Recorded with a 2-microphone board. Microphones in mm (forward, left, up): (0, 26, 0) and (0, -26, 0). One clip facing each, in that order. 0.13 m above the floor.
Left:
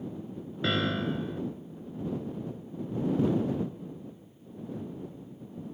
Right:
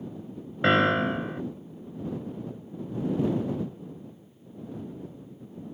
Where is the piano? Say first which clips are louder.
Right 7 dB; 45° right (ahead or behind).